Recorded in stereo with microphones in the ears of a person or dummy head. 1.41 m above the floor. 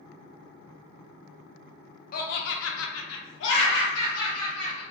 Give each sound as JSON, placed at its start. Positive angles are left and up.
{"t": 2.1, "sound": "laughter", "side_deg": 45, "distance_m": 0.6}